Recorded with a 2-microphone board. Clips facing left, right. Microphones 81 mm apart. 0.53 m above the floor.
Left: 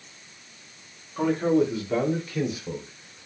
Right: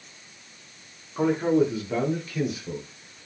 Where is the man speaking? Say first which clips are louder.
Even; 15° right (ahead or behind), 0.9 m; by 3.3 s 20° left (ahead or behind), 1.5 m.